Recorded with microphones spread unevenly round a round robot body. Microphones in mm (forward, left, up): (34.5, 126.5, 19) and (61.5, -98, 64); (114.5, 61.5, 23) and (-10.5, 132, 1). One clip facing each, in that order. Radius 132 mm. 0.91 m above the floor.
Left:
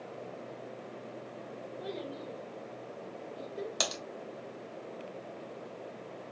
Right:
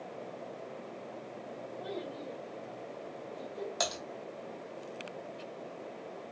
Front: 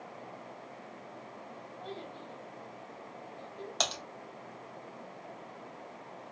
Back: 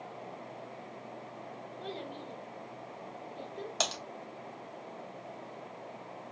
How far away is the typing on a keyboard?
About 1.2 m.